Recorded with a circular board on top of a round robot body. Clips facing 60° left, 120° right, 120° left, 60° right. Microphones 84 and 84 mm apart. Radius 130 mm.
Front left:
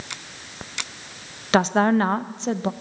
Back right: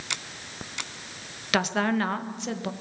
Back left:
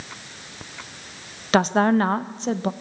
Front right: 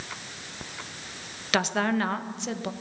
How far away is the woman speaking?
About 1.2 m.